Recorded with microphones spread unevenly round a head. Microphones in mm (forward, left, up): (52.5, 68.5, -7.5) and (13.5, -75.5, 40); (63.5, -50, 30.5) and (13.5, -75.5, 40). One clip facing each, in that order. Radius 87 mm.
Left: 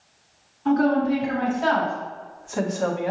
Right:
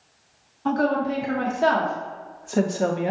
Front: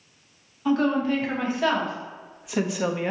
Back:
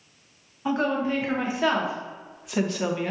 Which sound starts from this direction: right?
A woman speaking, at 0.7 s.